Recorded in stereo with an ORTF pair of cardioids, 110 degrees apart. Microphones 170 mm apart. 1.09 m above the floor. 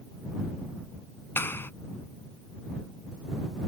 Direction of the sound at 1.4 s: 10° left.